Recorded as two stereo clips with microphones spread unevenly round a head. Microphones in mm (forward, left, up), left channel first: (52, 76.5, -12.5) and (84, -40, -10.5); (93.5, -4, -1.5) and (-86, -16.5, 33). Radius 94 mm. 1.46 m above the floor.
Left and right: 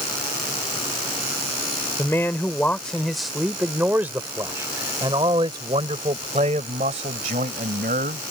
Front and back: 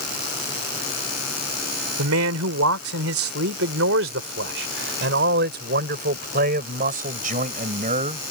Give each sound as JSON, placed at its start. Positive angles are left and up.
{"t": 2.0, "sound": "a man speaking", "azimuth_deg": 180}